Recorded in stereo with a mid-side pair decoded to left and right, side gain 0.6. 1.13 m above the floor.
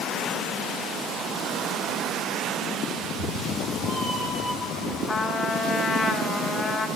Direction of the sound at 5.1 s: 25° left.